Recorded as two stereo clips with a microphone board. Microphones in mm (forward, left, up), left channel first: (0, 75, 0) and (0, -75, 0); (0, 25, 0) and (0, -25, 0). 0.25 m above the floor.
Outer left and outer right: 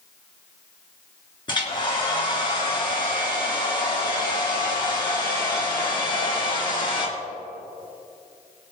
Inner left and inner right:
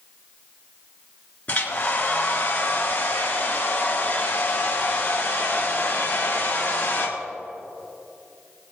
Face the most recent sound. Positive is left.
turn(degrees=30)  # may be behind; listen again after turning